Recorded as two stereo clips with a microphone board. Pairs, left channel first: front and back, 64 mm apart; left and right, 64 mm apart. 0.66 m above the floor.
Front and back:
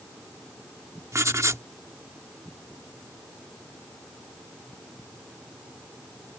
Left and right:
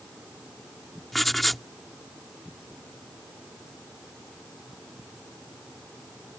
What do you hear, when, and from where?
1.1 s writing: straight behind